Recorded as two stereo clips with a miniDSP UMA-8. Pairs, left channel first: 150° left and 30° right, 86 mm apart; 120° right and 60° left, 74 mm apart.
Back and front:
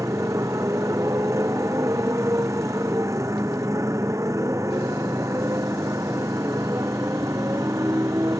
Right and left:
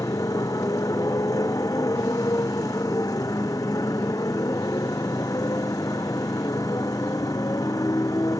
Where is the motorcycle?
85° right.